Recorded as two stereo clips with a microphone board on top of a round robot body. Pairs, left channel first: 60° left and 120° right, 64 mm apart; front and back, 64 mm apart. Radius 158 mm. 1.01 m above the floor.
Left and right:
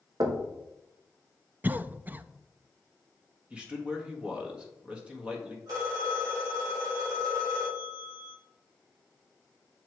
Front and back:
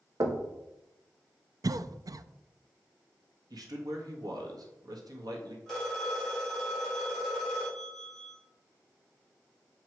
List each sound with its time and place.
0.2 s knocking: 145° right, 1.0 m
1.6 s a cough: straight behind, 0.5 m
3.5 s a man speaking: 165° left, 1.7 m
5.7 s a phone ringing: 80° right, 3.5 m